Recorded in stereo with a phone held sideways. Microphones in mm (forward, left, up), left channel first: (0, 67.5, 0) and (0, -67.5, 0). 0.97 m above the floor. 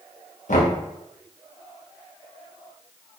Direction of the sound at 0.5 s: 70° left (ahead or behind).